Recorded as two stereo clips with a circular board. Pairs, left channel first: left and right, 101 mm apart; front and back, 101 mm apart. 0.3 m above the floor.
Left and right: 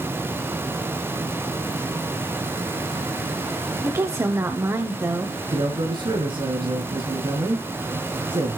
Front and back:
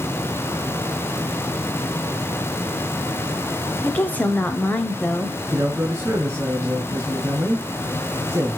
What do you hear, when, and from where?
3.8 s a woman speaking: 60° right, 1.1 m
5.5 s a man speaking: 120° right, 5 m